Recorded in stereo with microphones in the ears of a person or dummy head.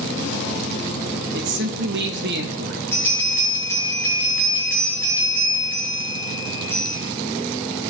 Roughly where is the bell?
Centre.